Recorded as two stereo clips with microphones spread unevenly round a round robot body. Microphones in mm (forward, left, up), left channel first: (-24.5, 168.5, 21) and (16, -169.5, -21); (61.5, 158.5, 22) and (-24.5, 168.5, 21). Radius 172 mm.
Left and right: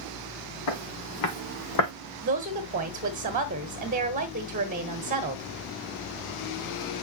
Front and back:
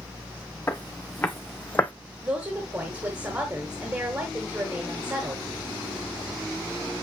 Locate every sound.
0.7 s footsteps: 60° left, 3 m; by 1.9 s 65° left, 1.3 m
2.2 s a woman speaking: 130° right, 1.2 m